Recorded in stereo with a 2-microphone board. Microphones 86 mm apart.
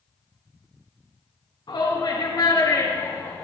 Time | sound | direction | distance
1.7 | a shout | 55° left (ahead or behind) | 3.5 m